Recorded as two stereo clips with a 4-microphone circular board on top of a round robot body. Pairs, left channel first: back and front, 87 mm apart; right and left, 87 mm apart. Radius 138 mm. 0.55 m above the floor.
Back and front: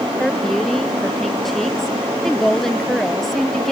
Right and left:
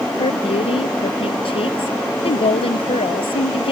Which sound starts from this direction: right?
A woman speaking, at 0.2 s.